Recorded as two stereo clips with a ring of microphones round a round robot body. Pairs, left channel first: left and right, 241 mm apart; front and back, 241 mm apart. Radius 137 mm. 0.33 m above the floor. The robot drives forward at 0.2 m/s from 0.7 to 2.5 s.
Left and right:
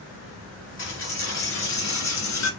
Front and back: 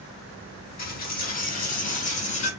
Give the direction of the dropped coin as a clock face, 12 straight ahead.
10 o'clock.